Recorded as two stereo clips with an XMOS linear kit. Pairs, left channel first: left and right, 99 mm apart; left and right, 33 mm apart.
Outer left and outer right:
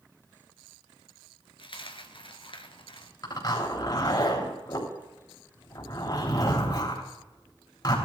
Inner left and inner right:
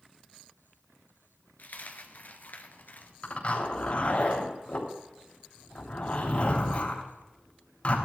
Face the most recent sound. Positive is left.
turn(degrees=40)  # may be behind; listen again after turning